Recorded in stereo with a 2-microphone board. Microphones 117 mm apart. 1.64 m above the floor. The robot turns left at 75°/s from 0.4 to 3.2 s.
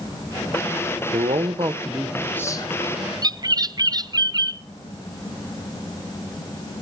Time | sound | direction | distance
1.1 | a man speaking | 105° right | 1.7 m
3.2 | a bird | 35° right (ahead or behind) | 0.5 m